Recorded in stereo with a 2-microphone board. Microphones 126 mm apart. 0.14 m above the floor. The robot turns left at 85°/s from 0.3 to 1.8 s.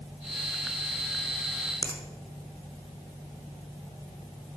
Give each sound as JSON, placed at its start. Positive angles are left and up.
{"t": 1.8, "sound": "a finger snap", "side_deg": 30, "distance_m": 1.1}